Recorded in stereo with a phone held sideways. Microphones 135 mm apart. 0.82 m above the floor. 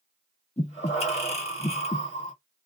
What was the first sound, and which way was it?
Breathing, 50° left (ahead or behind).